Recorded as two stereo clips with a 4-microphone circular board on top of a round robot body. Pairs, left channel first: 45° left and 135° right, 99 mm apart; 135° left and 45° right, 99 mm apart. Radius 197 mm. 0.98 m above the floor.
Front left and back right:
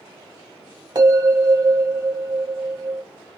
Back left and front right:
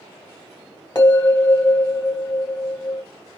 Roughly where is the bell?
Behind.